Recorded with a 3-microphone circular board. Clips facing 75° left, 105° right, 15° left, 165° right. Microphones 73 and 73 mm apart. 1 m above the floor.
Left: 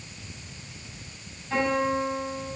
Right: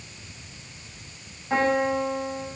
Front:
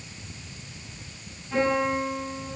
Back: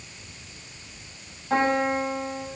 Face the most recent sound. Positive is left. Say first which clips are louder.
# right 2 dB, back 1 dB
turn(degrees=-150)